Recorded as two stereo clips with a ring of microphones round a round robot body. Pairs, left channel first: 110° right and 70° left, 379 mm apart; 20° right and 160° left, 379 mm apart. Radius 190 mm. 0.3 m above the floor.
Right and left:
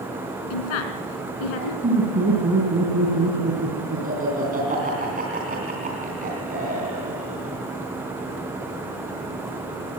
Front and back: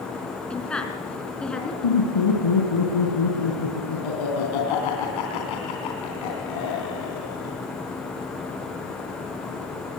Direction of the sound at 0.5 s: 110° right.